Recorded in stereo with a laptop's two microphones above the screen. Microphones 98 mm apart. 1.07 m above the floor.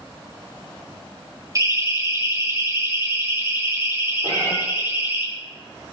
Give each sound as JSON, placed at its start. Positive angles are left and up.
{"t": 1.6, "sound": "a siren", "side_deg": -35, "distance_m": 3.5}
{"t": 4.2, "sound": "a cat meowing", "side_deg": -60, "distance_m": 9.0}